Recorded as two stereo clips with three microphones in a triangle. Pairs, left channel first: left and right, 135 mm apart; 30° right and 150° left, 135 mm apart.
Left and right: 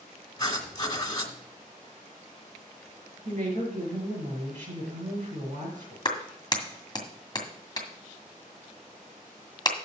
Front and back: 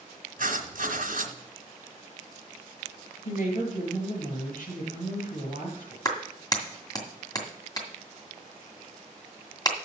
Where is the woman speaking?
55° right, 5.5 m.